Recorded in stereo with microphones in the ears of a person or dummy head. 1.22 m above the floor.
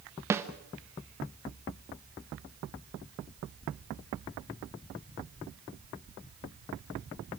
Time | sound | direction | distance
0.3 | a snare drum | 10° right (ahead or behind) | 1.2 m